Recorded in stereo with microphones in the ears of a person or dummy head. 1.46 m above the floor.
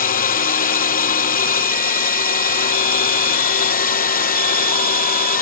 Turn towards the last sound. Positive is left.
turn(degrees=35)  # may be behind; listen again after turning